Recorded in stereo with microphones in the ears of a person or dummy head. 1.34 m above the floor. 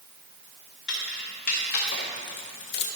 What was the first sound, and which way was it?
Keys jangling, 60° left (ahead or behind).